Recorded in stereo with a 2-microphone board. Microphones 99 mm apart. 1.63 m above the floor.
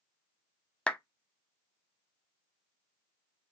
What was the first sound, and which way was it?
A clap, 10° left (ahead or behind).